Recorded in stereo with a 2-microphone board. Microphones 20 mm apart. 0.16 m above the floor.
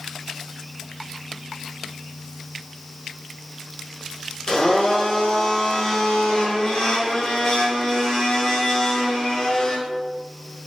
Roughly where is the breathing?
I don't hear breathing.